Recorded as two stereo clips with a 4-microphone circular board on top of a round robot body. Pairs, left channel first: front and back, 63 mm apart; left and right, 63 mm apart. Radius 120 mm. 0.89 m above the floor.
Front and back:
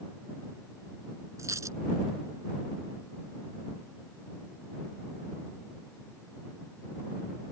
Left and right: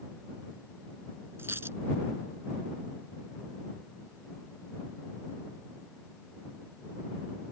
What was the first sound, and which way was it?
A dropped coin, 140° right.